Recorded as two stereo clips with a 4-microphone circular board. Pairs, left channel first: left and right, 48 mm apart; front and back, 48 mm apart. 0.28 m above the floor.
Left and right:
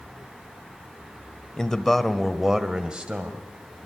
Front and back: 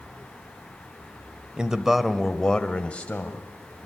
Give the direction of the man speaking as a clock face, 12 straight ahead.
7 o'clock.